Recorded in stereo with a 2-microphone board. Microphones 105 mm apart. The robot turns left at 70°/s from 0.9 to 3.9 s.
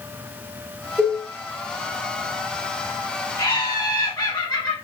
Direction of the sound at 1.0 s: 5° right (ahead or behind).